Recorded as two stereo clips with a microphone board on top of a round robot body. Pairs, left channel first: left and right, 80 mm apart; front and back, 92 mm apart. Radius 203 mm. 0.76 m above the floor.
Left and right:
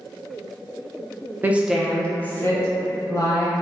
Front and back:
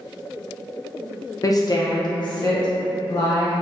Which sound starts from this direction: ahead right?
A woman speaking, at 1.4 s.